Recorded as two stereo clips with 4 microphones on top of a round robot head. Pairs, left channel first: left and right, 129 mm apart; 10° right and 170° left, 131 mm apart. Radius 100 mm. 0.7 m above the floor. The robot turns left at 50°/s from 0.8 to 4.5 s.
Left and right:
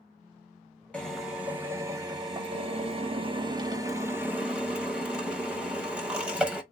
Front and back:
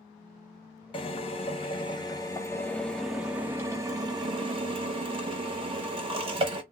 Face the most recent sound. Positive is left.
turn(degrees=-170)